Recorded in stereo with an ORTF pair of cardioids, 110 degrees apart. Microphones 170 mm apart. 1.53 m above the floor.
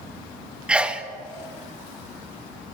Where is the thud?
No thud in this recording.